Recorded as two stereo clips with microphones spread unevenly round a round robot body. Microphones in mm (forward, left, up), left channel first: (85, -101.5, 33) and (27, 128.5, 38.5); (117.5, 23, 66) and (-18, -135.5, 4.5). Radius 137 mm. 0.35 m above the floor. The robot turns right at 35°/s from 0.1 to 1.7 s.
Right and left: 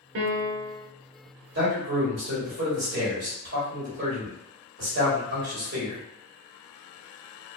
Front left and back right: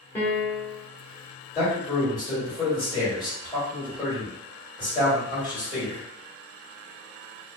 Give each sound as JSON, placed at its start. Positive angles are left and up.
{"t": 0.1, "sound": "a piano", "azimuth_deg": 140, "distance_m": 0.6}
{"t": 1.6, "sound": "a man speaking", "azimuth_deg": 125, "distance_m": 1.5}